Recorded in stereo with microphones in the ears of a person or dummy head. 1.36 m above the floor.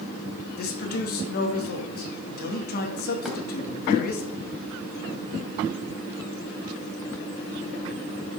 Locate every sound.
0.6 s a man speaking: 55° left (ahead or behind), 1.9 m
3.2 s a thud: centre (ahead or behind), 2.5 m